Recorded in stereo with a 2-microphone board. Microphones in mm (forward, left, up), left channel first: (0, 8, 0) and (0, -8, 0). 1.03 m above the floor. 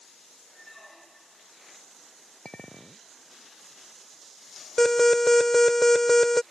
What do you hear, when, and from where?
0.6 s a squeak: 15° left (ahead or behind)
2.5 s a clink: 55° left (ahead or behind)
4.8 s an alarm: 25° left (ahead or behind)